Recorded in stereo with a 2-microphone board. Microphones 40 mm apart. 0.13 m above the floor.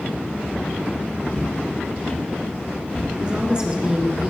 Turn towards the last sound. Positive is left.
turn(degrees=-20)  # may be behind; listen again after turning